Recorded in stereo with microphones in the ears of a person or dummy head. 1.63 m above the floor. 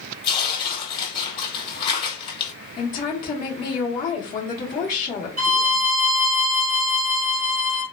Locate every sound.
0.2 s tearing paper: 25° left (ahead or behind), 1.1 m
2.8 s a woman speaking: 40° left (ahead or behind), 0.9 m
5.4 s a violin: 80° right, 1.4 m